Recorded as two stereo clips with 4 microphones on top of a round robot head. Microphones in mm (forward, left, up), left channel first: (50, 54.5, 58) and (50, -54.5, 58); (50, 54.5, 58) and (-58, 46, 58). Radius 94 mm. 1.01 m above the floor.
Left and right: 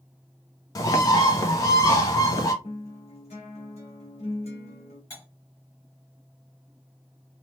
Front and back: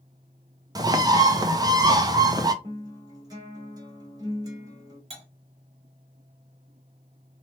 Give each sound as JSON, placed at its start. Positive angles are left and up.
{"t": 0.8, "sound": "a bird", "azimuth_deg": 140, "distance_m": 0.6}
{"t": 2.6, "sound": "a guitar", "azimuth_deg": 135, "distance_m": 1.3}
{"t": 5.1, "sound": "cutlery clinking", "azimuth_deg": 160, "distance_m": 1.5}